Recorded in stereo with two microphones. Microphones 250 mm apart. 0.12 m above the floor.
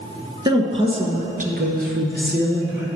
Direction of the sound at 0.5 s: 15° right (ahead or behind).